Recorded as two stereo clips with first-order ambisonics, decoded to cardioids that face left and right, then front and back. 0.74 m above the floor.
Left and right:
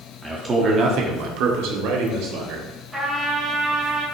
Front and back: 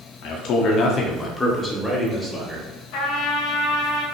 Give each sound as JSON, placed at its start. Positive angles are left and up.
{"t": 0.2, "sound": "a man speaking", "azimuth_deg": -10, "distance_m": 1.4}
{"t": 2.9, "sound": "a trumpet", "azimuth_deg": -5, "distance_m": 3.0}